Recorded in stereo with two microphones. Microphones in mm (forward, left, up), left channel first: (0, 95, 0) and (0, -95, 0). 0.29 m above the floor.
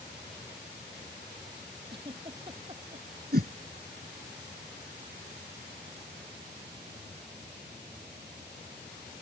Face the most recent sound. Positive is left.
turn(degrees=-55)  # may be behind; listen again after turning